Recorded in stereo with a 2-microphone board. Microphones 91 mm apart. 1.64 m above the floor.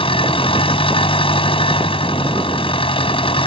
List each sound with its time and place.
0.0 s an engine running: 75° left (ahead or behind)